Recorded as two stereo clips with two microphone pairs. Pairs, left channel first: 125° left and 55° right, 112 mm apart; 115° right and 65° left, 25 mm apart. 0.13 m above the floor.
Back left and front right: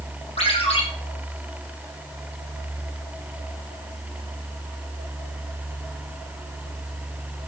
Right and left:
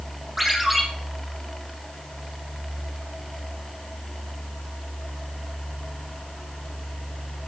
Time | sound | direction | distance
0.4 | a ringtone | 150° left | 3.5 m